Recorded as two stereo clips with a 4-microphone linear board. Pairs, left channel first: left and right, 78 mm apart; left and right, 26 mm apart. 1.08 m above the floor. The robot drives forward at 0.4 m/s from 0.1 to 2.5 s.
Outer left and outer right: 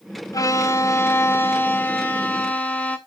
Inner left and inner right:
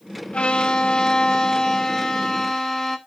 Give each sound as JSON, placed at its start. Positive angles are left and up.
{"t": 0.3, "sound": "a violin", "side_deg": 50, "distance_m": 0.5}